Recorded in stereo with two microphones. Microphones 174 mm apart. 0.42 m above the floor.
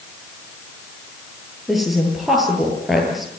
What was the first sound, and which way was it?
A woman speaking, centre (ahead or behind).